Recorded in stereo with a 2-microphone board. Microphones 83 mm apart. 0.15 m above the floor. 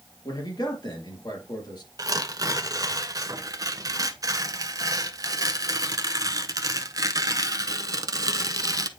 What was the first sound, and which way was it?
A man speaking, 55° left (ahead or behind).